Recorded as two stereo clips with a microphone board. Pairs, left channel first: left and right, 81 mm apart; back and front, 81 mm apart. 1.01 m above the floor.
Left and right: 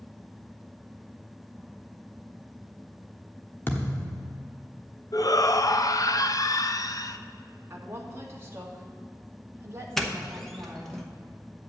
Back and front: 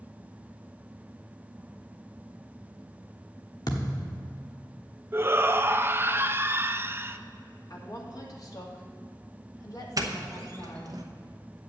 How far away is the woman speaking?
About 1.7 m.